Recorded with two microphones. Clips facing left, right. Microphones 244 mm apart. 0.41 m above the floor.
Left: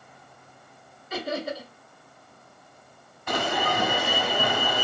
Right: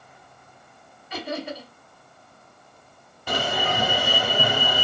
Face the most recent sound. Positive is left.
turn(degrees=-35)  # may be behind; listen again after turning